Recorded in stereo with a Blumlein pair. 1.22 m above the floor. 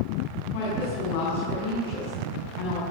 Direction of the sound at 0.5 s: 50° left.